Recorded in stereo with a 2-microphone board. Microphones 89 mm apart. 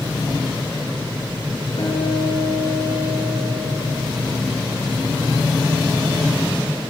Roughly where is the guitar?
Left.